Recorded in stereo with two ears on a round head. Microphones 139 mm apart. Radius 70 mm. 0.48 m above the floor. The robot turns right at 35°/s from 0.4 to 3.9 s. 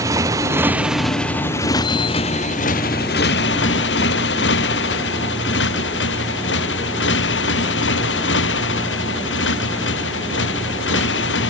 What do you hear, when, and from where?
0.0 s a motorcycle: 20° right (ahead or behind); by 11.5 s 85° left